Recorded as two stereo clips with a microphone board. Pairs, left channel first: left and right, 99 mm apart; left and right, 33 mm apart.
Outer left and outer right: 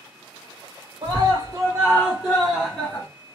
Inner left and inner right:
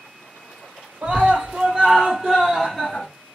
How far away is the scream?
About 1.2 m.